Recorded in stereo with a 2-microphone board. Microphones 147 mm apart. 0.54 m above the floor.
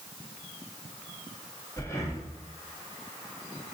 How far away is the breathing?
About 0.7 m.